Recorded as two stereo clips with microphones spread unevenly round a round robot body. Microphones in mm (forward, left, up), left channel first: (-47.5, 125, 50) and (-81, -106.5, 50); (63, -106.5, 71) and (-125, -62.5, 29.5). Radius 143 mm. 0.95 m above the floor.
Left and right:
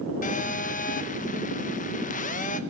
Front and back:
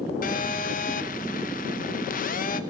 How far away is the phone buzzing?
About 1.1 m.